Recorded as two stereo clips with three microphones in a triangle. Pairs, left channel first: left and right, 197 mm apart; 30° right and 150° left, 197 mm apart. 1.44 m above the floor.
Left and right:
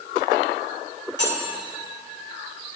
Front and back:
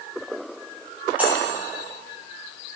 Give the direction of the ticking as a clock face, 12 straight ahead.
No ticking in this recording.